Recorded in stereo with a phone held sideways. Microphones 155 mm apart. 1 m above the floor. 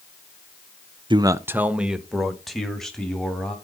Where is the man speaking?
30° right (ahead or behind), 0.6 m; by 3.5 s 5° left (ahead or behind), 3 m.